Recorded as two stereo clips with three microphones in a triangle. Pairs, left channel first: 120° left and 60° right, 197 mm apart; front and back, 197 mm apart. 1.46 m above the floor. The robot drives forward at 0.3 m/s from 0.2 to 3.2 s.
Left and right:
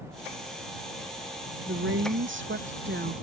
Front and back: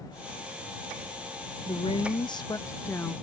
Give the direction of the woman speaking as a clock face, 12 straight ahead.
2 o'clock.